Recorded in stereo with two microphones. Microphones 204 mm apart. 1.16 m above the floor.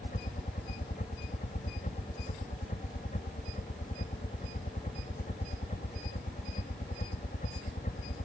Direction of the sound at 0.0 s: 40° left (ahead or behind).